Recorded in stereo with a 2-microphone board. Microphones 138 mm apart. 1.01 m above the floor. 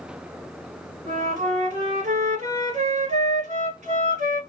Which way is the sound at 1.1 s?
60° right (ahead or behind).